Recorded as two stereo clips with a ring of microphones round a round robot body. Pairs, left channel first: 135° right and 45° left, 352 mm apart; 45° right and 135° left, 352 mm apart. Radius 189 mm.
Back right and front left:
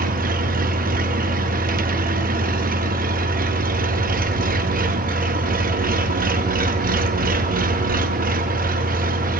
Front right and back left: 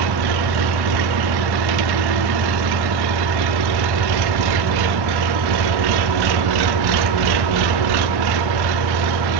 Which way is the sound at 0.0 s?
110° left.